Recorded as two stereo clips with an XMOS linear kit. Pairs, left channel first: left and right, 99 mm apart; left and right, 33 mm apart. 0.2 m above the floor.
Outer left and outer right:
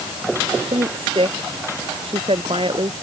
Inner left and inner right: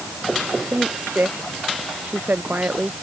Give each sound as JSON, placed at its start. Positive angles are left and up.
{"t": 0.7, "sound": "a woman speaking", "side_deg": -75}